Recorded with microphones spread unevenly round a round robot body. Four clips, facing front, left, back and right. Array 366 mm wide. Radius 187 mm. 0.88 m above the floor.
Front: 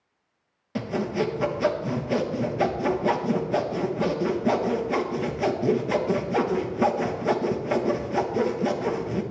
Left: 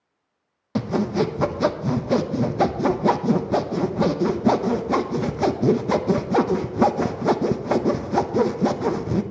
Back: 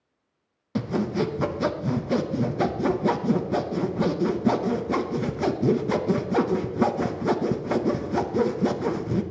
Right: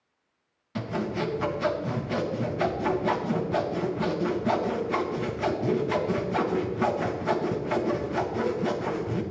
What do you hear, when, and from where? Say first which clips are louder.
0.8 s sawing: left 7 dB, back 1 dB; 105° left, 0.7 m